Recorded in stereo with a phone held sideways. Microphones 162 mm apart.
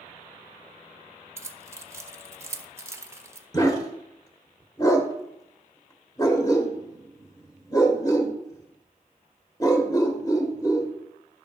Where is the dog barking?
25° left (ahead or behind), 1.3 m.